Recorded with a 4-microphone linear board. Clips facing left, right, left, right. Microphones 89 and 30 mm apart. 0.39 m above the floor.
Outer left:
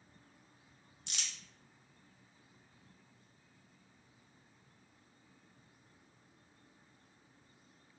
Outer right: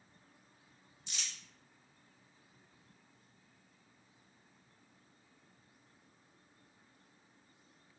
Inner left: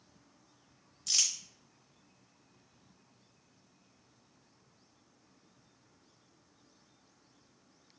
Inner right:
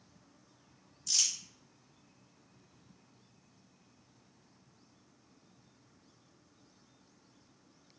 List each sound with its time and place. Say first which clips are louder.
1.1 s crumpling: outer left 1 dB, inner left 1 dB; 65° left (ahead or behind), 0.7 m